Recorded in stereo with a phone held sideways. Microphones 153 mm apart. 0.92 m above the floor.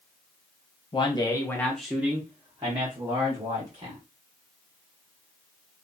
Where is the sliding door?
I don't hear a sliding door.